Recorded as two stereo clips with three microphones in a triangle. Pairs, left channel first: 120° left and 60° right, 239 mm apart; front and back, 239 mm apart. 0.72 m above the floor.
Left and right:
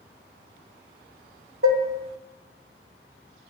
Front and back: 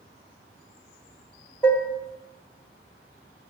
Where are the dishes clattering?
85° right, 1.1 m.